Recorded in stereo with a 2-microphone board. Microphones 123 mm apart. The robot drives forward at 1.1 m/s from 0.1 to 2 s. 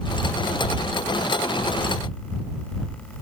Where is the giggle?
No giggle in this recording.